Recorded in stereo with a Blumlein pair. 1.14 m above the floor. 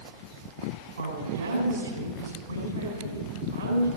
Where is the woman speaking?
70° right, 4 m.